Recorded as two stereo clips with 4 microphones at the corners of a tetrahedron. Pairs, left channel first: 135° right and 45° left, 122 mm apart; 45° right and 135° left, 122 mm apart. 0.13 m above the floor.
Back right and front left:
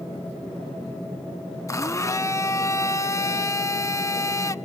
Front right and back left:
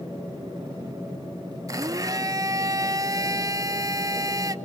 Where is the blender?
170° left, 0.5 m.